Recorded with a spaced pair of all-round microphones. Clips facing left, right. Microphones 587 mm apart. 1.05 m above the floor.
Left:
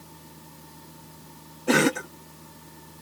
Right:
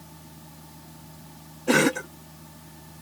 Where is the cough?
Centre (ahead or behind).